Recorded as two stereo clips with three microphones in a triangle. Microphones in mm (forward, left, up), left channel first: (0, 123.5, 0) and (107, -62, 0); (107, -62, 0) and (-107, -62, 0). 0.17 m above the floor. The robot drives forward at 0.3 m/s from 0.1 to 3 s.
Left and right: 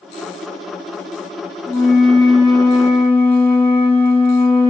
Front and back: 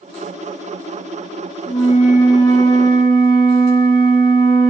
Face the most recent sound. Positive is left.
turn(degrees=45)